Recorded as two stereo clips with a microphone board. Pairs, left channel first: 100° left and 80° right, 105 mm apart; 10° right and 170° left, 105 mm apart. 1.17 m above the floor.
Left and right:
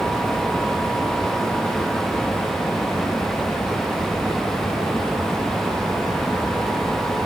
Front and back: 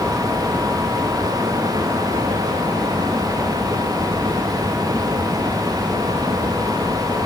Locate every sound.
Only background noise.